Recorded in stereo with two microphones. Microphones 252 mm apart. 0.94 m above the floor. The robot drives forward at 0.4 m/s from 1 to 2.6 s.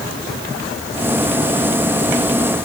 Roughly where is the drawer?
No drawer in this recording.